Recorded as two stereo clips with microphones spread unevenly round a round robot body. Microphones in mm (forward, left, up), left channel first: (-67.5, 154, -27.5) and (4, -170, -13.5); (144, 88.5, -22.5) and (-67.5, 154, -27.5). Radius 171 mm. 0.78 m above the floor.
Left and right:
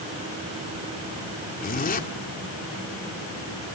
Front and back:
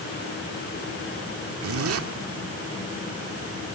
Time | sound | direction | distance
1.6 | a zipper | 165° left | 2.0 m